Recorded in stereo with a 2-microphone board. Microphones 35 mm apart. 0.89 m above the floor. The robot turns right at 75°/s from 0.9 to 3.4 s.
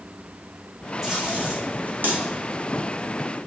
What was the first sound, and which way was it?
Tape being pulled, 5° left (ahead or behind).